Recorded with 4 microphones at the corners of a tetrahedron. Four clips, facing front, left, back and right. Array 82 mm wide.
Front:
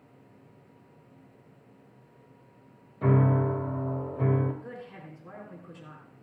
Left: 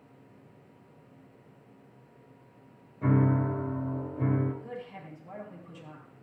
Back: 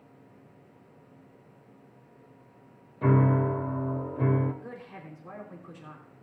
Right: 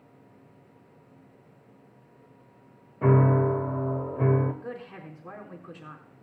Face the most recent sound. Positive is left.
turn(degrees=-95)